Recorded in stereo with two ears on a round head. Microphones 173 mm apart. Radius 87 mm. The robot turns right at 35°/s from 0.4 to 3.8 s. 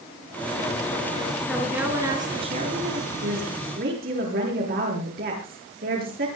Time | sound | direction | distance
1.5 | a woman speaking | 175° left | 6.5 m
3.2 | a woman speaking | 70° right (ahead or behind) | 9 m